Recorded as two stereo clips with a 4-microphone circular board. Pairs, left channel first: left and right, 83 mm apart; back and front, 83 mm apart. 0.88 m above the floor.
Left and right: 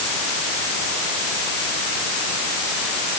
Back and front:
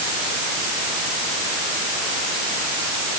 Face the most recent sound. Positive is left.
No sound to turn to.